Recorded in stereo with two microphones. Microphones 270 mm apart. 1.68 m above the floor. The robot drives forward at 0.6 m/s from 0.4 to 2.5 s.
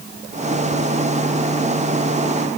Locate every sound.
Only background noise.